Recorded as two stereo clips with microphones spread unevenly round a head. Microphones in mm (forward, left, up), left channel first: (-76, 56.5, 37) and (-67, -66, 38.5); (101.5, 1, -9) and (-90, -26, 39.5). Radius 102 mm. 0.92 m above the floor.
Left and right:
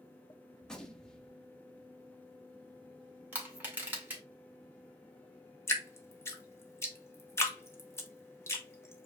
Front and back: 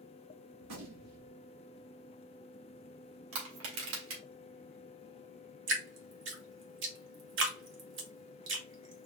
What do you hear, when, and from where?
0.6 s a gunshot: straight behind, 1.4 m
3.3 s crushing: 160° right, 2 m
5.7 s dripping: 160° left, 1.3 m